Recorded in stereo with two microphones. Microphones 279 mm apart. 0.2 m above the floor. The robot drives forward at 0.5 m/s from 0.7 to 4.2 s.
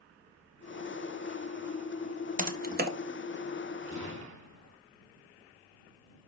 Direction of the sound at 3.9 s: 80° right.